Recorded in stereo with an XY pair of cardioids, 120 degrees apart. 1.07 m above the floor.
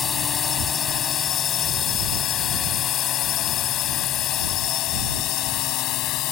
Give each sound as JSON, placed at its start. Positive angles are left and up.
{"t": 0.0, "sound": "a drone", "azimuth_deg": 40}